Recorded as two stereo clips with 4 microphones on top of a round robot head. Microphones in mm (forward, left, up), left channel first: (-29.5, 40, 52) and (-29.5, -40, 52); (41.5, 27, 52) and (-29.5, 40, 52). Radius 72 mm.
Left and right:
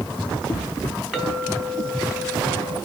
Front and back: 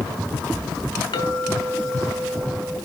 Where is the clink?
10° right, 3.5 m.